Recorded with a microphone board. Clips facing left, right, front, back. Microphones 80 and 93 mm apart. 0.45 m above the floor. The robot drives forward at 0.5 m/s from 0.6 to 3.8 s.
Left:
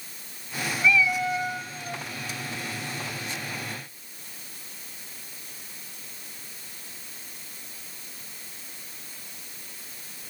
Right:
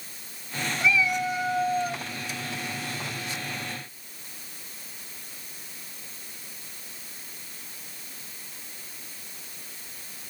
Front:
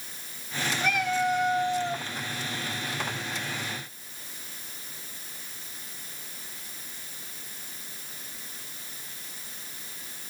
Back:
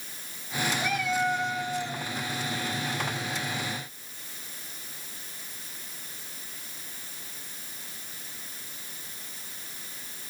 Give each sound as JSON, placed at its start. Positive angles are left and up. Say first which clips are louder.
{"t": 0.8, "sound": "a cat meowing", "louder": "left 2 dB, front 3 dB", "azimuth_deg": -15, "distance_m": 2.0}